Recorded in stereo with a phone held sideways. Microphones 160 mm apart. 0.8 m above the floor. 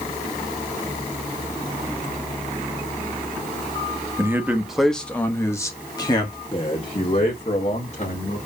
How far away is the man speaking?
About 1.0 m.